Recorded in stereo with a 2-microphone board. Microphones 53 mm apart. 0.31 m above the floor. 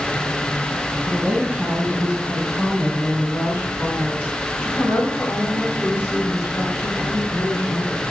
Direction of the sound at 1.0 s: 25° right (ahead or behind).